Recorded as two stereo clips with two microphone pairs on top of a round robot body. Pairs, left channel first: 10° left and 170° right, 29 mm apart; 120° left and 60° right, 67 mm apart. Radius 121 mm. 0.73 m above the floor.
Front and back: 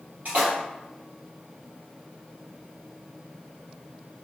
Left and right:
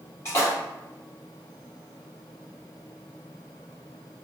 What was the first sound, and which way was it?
A splash, 165° left.